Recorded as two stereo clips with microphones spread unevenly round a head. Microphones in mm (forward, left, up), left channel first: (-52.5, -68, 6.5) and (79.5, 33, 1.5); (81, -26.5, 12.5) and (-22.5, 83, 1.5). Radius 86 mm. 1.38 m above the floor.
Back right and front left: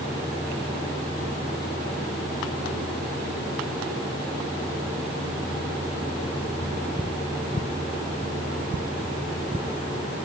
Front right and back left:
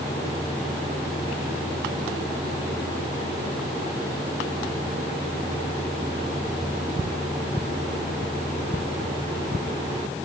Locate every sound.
Only background noise.